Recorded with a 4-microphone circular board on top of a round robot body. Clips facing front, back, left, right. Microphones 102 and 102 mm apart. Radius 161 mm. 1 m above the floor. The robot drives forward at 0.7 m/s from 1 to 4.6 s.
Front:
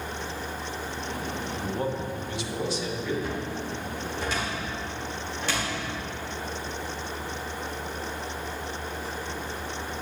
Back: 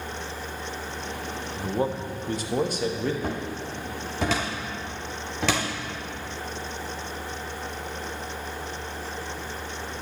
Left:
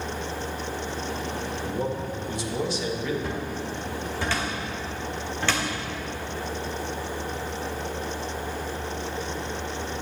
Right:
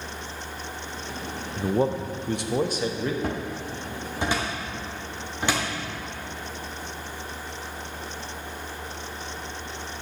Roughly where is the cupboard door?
Behind right.